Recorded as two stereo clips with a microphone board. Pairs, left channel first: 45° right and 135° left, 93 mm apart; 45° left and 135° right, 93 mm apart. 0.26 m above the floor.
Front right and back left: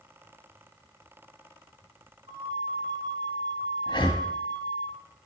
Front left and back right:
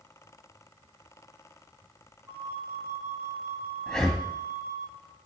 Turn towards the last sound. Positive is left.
turn(degrees=-40)